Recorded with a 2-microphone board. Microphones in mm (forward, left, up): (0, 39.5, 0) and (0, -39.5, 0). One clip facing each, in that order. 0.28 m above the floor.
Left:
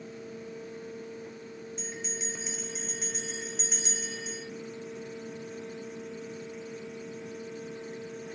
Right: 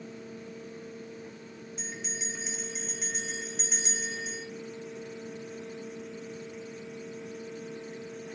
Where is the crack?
I don't hear a crack.